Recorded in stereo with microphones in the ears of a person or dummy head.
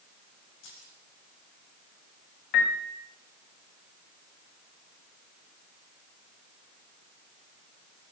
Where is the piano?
45° left (ahead or behind), 1.8 m.